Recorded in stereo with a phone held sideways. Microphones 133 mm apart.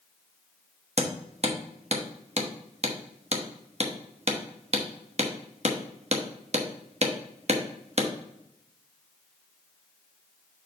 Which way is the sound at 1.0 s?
55° right (ahead or behind).